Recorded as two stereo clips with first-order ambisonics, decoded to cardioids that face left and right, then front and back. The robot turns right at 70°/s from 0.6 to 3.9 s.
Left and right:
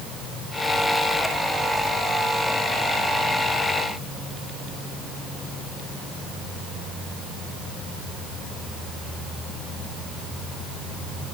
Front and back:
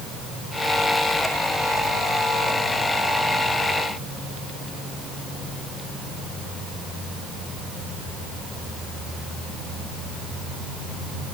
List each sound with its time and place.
Only background noise.